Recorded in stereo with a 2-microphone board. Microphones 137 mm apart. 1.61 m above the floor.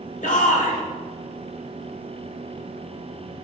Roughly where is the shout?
Left.